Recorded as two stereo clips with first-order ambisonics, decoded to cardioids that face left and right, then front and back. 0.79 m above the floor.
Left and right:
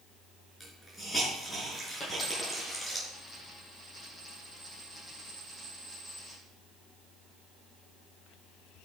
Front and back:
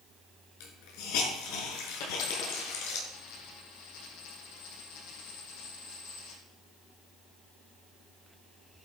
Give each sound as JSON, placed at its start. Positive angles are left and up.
{"t": 0.6, "sound": "a hiss", "azimuth_deg": 5, "distance_m": 4.5}
{"t": 2.0, "sound": "a dropped coin", "azimuth_deg": 15, "distance_m": 7.5}